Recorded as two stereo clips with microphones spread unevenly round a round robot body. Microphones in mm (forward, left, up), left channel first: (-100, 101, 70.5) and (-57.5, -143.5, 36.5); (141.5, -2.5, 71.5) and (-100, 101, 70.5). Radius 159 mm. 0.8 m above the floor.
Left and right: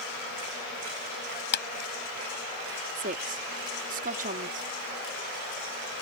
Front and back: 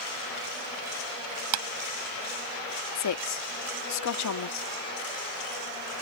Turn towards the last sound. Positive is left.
turn(degrees=-25)